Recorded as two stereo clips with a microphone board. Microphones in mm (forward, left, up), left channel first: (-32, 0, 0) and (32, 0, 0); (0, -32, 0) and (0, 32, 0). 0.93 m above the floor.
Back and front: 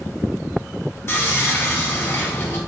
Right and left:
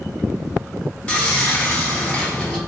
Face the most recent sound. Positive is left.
turn(degrees=-155)